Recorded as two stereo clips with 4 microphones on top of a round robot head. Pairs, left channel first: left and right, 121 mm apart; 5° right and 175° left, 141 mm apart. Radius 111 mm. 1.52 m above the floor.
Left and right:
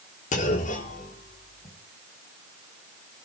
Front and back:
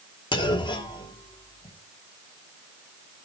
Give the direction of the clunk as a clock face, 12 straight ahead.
10 o'clock.